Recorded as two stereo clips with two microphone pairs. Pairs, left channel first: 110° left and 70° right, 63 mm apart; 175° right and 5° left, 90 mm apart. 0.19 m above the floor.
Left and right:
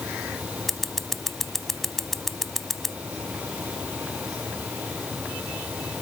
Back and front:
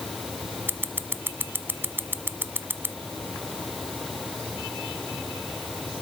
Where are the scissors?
25° left.